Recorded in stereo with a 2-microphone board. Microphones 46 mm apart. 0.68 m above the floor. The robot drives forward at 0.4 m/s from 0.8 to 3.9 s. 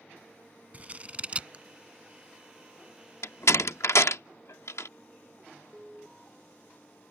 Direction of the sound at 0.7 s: 30° right (ahead or behind).